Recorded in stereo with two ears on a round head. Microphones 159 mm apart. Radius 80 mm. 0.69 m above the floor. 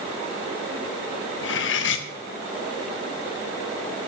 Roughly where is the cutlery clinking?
Left.